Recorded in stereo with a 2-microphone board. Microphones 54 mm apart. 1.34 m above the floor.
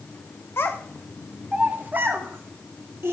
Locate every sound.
0.6 s a child speaking: 45° left (ahead or behind), 0.5 m; by 3.1 s 45° right (ahead or behind), 1.7 m